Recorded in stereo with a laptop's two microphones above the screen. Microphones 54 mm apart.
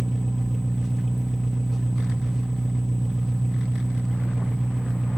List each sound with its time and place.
0.0 s an engine running: 10° right (ahead or behind), 1.2 m